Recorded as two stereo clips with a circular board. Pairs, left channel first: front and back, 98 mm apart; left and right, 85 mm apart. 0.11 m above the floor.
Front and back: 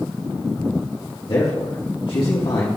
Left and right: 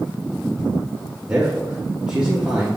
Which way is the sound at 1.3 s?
15° right.